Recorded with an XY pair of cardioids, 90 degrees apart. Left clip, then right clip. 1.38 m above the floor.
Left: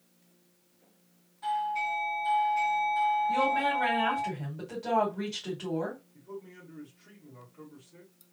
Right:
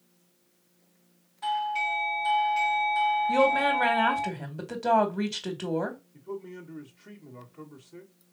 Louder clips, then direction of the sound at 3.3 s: Right 4 dB; 60° right.